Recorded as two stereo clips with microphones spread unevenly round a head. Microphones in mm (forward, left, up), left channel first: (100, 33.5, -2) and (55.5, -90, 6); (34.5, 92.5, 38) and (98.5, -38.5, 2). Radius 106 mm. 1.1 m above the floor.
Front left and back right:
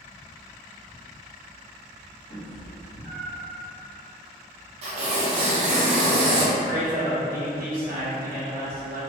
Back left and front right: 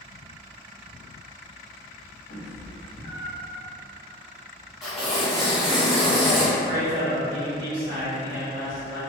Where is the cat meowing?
125° left, 0.7 m.